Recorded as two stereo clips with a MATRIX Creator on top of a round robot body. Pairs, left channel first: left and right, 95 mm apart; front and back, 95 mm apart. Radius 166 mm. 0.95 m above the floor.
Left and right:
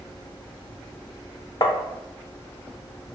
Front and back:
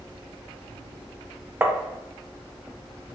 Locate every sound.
1.6 s tapping: 115° left, 0.7 m